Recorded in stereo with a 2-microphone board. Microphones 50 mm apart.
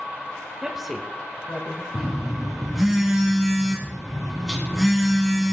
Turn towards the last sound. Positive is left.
turn(degrees=-5)  # may be behind; listen again after turning